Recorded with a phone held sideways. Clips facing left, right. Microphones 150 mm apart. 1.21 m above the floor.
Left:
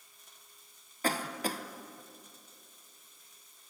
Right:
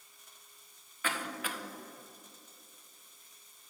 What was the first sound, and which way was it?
A cough, 35° left (ahead or behind).